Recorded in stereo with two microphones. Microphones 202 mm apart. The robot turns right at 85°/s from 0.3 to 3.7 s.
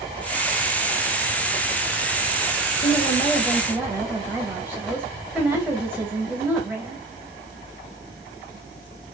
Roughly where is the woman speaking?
Behind left.